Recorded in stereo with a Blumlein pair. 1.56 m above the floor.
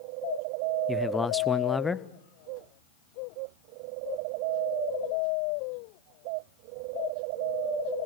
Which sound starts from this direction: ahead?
A man speaking, at 0.9 s.